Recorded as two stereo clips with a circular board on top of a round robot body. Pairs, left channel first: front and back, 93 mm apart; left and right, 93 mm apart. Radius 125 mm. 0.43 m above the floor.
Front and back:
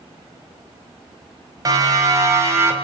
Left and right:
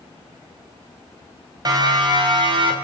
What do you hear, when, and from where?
1.6 s a siren: 130° right, 5 m; by 2.8 s 115° right, 5.5 m